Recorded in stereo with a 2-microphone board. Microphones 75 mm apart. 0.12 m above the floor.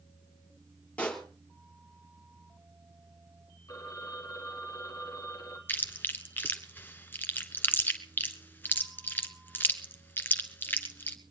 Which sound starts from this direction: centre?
A pop, at 1.0 s.